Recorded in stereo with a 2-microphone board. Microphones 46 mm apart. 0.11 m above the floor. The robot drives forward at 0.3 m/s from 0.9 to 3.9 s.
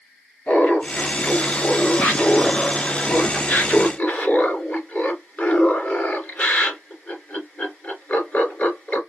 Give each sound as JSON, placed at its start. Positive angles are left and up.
{"t": 0.5, "sound": "laughter", "side_deg": 35, "distance_m": 2.0}